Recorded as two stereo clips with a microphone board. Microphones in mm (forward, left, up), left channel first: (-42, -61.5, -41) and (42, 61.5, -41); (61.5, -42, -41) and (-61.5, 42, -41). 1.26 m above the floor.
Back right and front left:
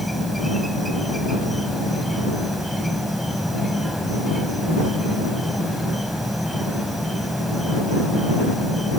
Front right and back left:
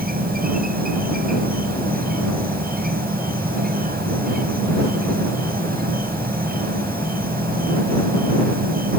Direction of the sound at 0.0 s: 145° left.